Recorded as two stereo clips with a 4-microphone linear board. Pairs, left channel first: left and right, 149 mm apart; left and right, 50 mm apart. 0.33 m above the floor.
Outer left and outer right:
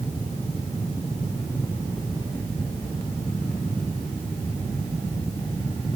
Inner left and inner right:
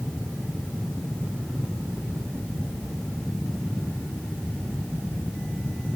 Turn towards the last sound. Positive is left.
No sound to turn to.